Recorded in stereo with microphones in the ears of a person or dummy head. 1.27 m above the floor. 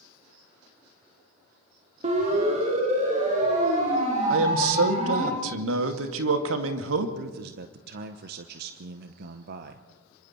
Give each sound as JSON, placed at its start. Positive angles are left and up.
{"t": 2.0, "sound": "a siren", "side_deg": -30, "distance_m": 3.0}
{"t": 4.3, "sound": "a man speaking", "side_deg": -85, "distance_m": 2.0}
{"t": 7.2, "sound": "a man speaking", "side_deg": -65, "distance_m": 0.8}